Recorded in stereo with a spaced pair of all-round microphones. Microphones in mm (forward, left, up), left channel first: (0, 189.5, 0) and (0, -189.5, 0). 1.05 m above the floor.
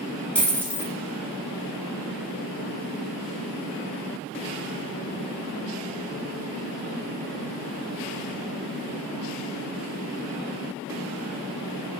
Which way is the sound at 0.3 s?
5° left (ahead or behind).